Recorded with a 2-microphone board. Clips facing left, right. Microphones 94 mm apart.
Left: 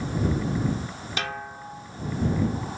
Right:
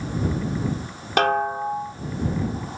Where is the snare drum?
55° right (ahead or behind).